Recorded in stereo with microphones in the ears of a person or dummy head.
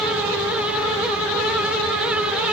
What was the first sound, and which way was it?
Only background noise.